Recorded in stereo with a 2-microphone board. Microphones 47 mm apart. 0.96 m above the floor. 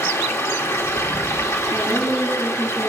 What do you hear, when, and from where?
0.0 s running water: 80° left, 1.3 m
1.7 s a woman speaking: 55° left (ahead or behind), 9 m